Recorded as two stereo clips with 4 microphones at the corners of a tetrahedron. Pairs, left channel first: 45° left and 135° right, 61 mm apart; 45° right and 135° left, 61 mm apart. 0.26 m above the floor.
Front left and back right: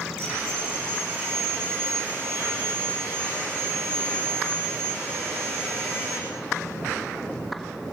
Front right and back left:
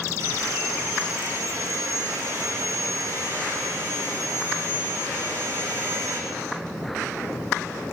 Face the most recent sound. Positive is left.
turn(degrees=170)